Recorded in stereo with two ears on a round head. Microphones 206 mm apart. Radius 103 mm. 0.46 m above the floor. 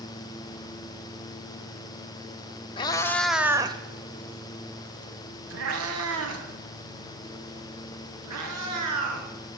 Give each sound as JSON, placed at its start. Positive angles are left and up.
{"t": 2.8, "sound": "a cat meowing", "side_deg": 20, "distance_m": 1.0}